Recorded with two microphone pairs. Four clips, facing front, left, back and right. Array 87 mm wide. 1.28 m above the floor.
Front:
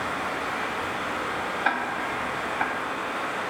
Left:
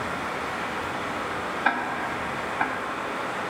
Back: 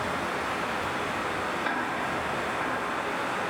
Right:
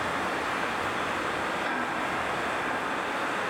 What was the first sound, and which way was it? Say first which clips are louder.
Running water: even, front 1 dB; 95° right.